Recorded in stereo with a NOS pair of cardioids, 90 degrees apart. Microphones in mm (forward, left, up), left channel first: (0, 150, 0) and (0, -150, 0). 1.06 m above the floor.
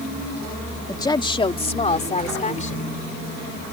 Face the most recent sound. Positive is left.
turn(degrees=25)